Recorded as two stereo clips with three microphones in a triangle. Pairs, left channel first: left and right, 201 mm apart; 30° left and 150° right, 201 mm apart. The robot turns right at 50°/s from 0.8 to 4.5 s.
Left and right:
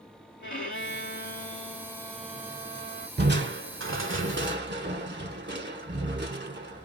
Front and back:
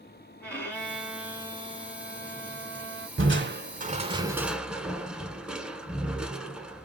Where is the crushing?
130° right, 0.6 m; by 6.8 s 65° right, 0.6 m.